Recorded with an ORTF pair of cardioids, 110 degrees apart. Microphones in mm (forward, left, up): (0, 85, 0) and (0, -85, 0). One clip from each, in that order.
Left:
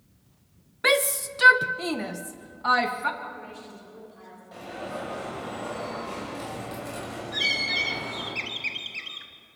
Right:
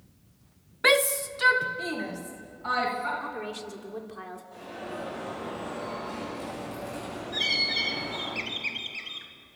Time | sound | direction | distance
0.8 | a shout | 5° right | 0.7 m
3.2 | a woman speaking | 60° right | 4.5 m
4.5 | an alarm | 45° left | 9 m
7.3 | a bird | 15° left | 1.9 m